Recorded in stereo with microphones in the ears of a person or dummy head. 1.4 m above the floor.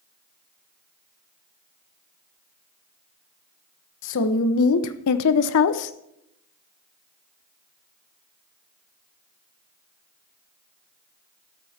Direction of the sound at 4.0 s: 60° left (ahead or behind).